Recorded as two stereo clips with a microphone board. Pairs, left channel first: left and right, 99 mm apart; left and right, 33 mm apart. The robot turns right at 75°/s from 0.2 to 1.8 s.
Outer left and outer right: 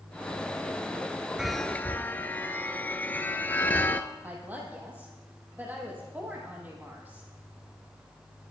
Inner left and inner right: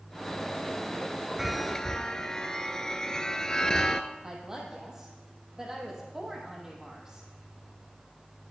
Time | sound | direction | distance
1.4 | a chime | 10° right | 0.8 m
4.2 | a woman speaking | 15° right (ahead or behind) | 4.5 m